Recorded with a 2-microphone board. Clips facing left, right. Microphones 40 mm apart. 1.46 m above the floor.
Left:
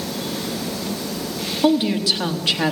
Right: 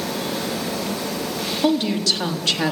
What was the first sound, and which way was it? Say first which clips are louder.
A woman speaking: left 2 dB; 15° left (ahead or behind).